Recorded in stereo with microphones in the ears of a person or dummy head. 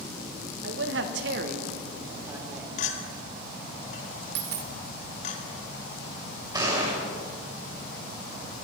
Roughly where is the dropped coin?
Right.